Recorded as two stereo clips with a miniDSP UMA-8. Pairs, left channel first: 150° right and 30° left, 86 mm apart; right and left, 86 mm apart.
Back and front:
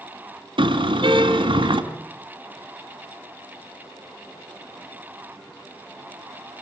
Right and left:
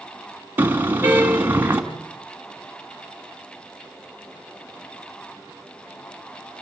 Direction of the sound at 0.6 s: 25° left.